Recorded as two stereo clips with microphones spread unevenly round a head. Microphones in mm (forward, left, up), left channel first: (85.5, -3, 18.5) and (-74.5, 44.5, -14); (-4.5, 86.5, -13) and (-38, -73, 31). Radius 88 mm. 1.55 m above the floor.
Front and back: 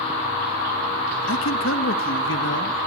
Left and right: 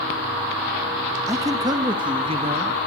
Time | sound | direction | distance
1.3 | a man speaking | 25° right | 3 m